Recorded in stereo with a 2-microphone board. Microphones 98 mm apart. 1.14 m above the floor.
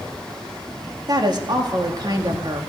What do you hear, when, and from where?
1.1 s a woman speaking: 45° right (ahead or behind), 1.6 m